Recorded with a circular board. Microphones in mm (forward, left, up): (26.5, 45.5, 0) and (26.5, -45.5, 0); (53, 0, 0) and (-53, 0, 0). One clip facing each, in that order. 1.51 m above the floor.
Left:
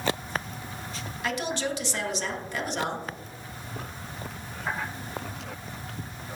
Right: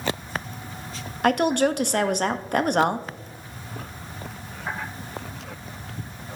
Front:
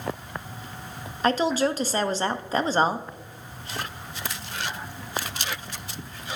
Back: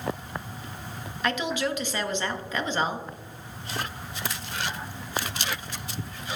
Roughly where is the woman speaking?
Ahead right.